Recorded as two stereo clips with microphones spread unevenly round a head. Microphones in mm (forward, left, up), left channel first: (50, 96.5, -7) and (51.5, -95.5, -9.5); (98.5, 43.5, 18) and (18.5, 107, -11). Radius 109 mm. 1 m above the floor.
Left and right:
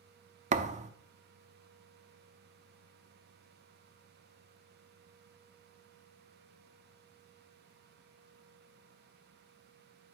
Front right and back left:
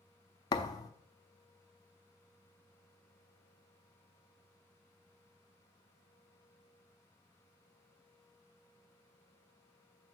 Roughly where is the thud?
Ahead right.